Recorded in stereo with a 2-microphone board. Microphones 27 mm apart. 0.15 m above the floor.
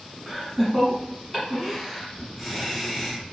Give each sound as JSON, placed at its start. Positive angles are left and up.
{"t": 0.3, "sound": "laughter", "side_deg": -10, "distance_m": 1.1}